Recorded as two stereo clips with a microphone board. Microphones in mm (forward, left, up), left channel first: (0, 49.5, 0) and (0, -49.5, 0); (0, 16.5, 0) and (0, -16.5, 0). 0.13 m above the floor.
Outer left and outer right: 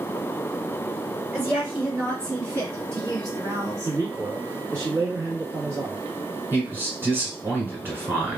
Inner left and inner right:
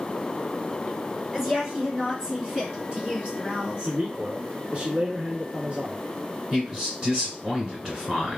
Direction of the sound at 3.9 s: 30° right (ahead or behind).